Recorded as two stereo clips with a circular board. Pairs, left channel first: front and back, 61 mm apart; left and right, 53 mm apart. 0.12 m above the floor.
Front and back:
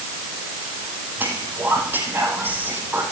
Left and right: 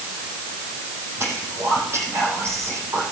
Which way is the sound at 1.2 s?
120° right.